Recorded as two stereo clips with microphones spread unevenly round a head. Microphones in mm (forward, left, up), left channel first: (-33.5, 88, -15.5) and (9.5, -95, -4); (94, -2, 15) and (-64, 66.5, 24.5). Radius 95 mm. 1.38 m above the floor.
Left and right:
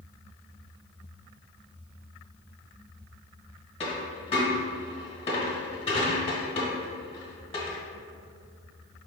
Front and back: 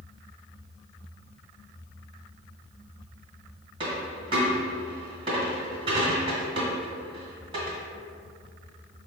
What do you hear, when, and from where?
3.8 s a dropped coin: 135° left, 1.3 m